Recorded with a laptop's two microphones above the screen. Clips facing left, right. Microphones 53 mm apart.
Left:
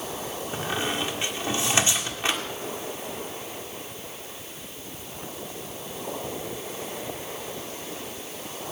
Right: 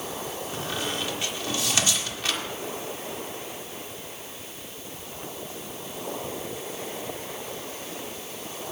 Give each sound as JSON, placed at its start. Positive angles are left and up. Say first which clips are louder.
{"t": 0.5, "sound": "a squeak", "louder": "left 3 dB", "side_deg": 30, "distance_m": 1.6}